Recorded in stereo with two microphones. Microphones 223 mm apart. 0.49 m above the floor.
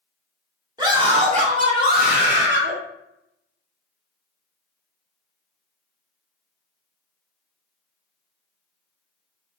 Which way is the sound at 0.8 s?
20° right (ahead or behind).